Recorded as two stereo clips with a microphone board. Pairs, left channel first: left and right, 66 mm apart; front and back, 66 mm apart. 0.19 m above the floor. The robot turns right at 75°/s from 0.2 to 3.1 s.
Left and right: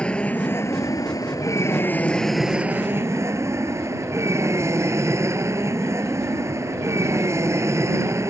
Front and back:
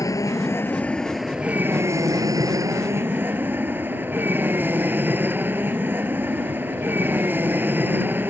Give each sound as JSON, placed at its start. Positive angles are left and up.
{"t": 0.0, "sound": "an aircraft", "azimuth_deg": 15}